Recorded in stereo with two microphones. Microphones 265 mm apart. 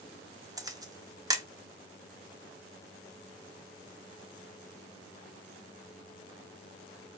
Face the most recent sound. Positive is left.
turn(degrees=-15)  # may be behind; listen again after turning